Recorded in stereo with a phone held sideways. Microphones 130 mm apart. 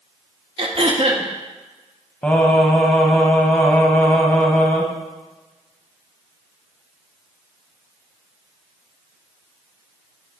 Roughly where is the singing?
Centre.